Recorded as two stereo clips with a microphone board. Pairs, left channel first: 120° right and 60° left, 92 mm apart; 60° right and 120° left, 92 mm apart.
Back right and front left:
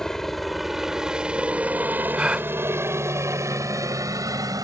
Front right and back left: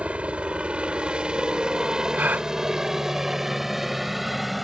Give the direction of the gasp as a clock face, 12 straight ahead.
8 o'clock.